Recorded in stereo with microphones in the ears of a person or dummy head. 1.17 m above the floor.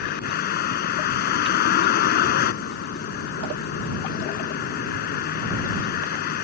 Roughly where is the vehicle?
Left.